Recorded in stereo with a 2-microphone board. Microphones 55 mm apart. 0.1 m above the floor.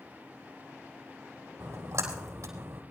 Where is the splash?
65° right (ahead or behind), 4 m.